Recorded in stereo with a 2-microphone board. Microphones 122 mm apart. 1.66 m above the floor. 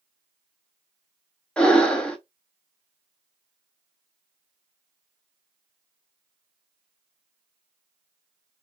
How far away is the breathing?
About 0.5 m.